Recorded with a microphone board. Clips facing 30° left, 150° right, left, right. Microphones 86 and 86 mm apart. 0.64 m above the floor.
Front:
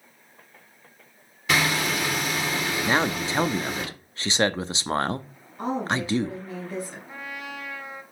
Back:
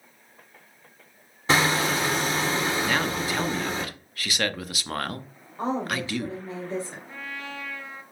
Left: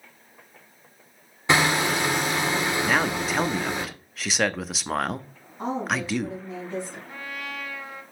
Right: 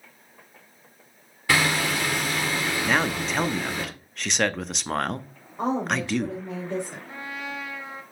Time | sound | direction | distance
1.5 | hammering | 155° left | 1.7 m
2.9 | a man speaking | 5° left | 0.5 m
5.6 | a woman speaking | 95° right | 3 m
7.1 | a trumpet | 35° right | 1.5 m